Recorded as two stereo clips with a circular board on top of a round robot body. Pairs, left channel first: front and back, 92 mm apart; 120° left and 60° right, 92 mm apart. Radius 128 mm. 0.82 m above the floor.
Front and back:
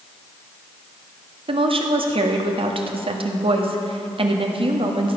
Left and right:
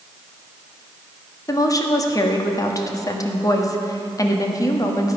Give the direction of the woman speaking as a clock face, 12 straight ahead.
6 o'clock.